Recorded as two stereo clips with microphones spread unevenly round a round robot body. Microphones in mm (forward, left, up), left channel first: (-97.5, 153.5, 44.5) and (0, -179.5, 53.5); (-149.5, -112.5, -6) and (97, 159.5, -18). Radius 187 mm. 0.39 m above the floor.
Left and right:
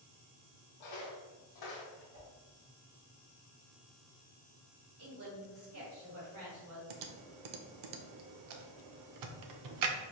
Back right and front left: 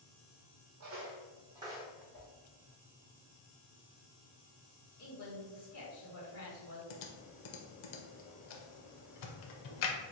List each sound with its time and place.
0.8 s footsteps: 95° left, 0.9 m; by 2.0 s 135° left, 1.3 m
2.1 s a whoosh: 55° right, 1.3 m
5.0 s a woman speaking: 95° right, 1.6 m
6.9 s typing on a keyboard: 100° right, 0.5 m